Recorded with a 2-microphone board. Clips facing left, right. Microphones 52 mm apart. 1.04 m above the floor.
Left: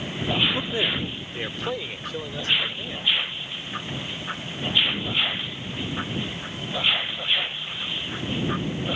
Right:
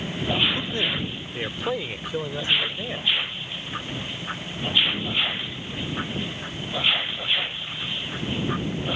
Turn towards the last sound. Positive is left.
turn(degrees=-25)  # may be behind; listen again after turning